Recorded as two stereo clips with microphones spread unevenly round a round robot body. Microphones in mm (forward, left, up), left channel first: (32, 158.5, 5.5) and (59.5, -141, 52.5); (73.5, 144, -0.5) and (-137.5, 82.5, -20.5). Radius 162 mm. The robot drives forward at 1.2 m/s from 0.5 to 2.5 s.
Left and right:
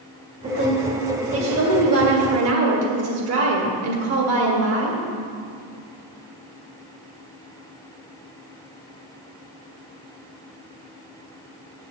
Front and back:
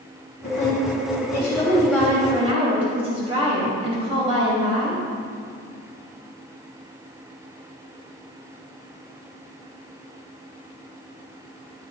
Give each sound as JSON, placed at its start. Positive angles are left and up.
{"t": 0.4, "sound": "a woman speaking", "azimuth_deg": -25, "distance_m": 2.5}